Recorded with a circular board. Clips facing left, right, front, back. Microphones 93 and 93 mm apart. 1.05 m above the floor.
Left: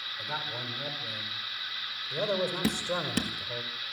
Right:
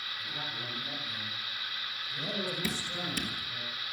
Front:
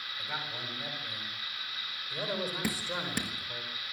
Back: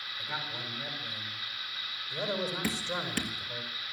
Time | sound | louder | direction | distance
0.2 | a man speaking | left 6 dB, back 1 dB | 75° left | 8 m
2.6 | dripping | left 6 dB, back 1 dB | 75° left | 1.8 m